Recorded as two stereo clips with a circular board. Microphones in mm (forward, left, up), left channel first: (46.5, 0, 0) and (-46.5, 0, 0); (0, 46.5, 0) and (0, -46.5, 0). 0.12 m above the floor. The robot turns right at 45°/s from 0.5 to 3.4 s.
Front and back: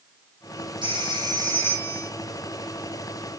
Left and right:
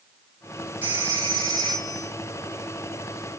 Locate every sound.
0.8 s a phone ringing: 155° right, 3 m; by 2.1 s 95° right, 3 m